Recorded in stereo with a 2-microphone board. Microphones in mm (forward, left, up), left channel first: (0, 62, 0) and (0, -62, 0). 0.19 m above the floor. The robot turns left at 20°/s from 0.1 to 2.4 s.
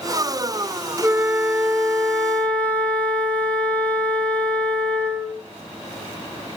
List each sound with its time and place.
1.0 s a flute: 15° right (ahead or behind), 1.2 m; by 5.4 s 10° left (ahead or behind), 1.2 m